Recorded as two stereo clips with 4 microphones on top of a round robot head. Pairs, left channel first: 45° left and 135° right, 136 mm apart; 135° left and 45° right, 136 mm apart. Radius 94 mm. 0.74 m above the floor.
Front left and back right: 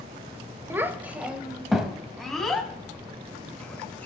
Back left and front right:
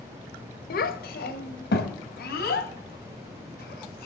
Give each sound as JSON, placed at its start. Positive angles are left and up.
{"t": 0.7, "sound": "a child speaking", "azimuth_deg": 150, "distance_m": 1.9}